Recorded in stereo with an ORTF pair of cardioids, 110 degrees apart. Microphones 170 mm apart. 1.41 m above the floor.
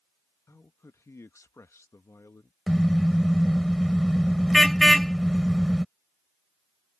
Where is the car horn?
Straight ahead.